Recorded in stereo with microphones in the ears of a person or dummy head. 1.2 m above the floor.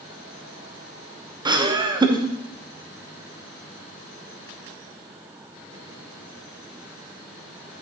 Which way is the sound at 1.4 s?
20° right (ahead or behind).